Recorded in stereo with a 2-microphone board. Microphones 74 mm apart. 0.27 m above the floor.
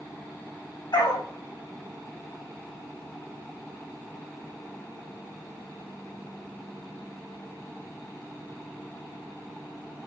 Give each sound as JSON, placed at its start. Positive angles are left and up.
{"t": 0.9, "sound": "a dog barking", "side_deg": 70, "distance_m": 4.5}